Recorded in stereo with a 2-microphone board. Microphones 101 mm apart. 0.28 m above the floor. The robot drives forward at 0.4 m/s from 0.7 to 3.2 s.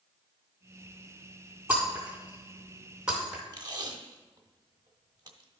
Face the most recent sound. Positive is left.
turn(degrees=-40)  # may be behind; listen again after turning